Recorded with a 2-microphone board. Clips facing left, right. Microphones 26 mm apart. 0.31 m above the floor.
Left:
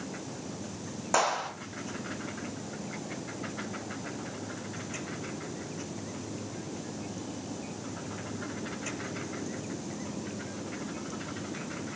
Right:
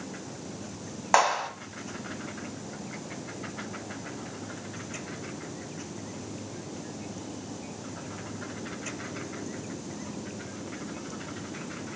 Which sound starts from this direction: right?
A clap, at 1.1 s.